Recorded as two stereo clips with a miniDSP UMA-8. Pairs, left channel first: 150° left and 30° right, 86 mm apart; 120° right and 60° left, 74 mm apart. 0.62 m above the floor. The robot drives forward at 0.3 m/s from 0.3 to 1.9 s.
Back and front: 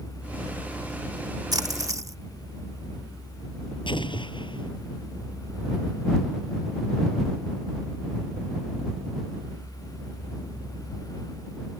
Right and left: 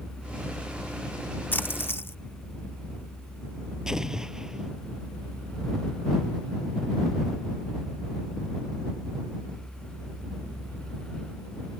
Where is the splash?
65° right; by 2.1 s 70° right.